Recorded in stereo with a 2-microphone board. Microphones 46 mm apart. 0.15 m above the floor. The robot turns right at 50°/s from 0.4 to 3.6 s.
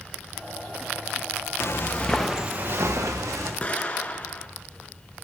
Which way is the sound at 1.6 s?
60° left (ahead or behind).